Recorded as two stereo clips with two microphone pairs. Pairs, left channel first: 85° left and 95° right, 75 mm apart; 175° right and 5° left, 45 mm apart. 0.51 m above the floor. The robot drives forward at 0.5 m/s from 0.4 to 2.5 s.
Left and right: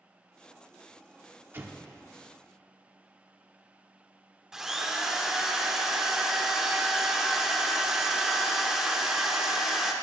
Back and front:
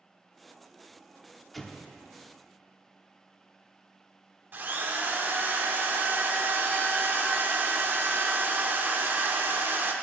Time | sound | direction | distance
1.5 | an explosion | 90° right | 0.8 m
4.5 | a drill | 10° right | 0.9 m